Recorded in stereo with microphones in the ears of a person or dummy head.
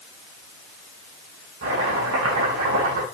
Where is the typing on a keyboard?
I don't hear typing on a keyboard.